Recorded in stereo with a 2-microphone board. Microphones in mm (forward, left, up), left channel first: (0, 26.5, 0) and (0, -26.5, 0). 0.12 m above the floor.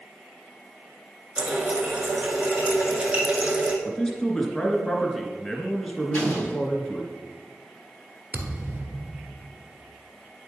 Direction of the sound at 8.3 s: 40° right (ahead or behind).